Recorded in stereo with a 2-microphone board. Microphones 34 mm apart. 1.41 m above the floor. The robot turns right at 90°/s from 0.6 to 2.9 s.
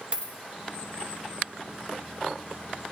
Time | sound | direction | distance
0.1 | a dropped coin | 30° right (ahead or behind) | 0.8 m